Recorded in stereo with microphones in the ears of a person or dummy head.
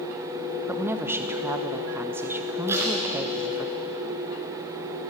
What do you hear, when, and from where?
0.7 s a woman speaking: 10° right (ahead or behind), 0.9 m
2.7 s tape being pulled: 15° right (ahead or behind), 3.5 m